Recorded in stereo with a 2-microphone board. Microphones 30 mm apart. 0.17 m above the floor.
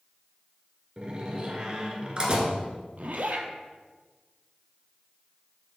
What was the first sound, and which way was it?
A door slam, 35° right (ahead or behind).